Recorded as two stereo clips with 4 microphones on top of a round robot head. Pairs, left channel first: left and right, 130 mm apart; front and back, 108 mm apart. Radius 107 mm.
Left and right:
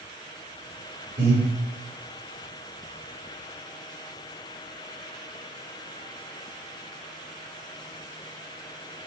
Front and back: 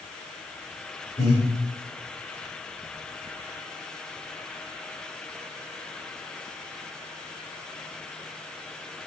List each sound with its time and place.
1.2 s breathing: 65° right, 1.1 m